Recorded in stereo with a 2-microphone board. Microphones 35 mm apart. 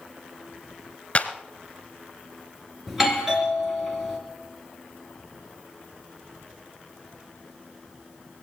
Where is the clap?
35° left (ahead or behind), 1.2 m.